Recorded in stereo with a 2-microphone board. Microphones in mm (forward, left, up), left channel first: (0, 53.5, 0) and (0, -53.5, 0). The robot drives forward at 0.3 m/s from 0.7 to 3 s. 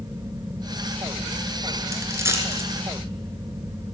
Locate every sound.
1.9 s a dropped coin: 25° right (ahead or behind), 2.5 m